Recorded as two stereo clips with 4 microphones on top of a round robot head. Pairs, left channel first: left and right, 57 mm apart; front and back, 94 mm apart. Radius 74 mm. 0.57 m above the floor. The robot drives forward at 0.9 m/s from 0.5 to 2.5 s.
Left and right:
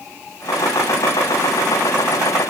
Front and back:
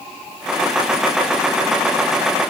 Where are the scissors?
No scissors in this recording.